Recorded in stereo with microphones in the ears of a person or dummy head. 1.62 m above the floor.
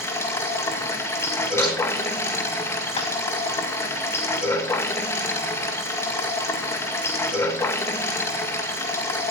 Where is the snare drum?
20° left (ahead or behind), 6.5 m.